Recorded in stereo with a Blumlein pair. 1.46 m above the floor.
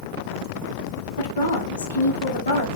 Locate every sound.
1.2 s a woman speaking: 70° left, 0.8 m